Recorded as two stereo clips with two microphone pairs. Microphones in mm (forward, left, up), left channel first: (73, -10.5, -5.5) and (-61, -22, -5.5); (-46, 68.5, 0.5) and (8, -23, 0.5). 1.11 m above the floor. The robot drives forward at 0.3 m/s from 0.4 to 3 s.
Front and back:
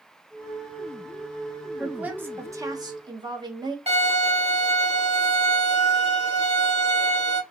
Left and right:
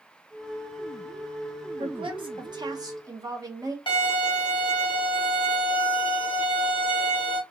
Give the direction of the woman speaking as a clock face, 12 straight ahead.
3 o'clock.